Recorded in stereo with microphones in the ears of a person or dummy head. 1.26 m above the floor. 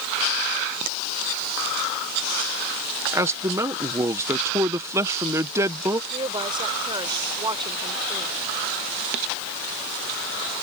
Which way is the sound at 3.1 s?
20° right (ahead or behind).